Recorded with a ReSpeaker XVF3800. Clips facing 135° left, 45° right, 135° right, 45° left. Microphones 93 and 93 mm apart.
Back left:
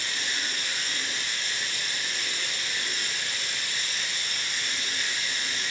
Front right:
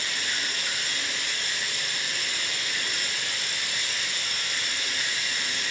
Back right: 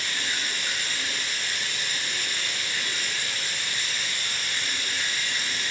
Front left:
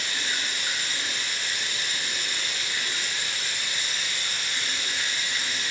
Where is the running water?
25° right, 2.5 m.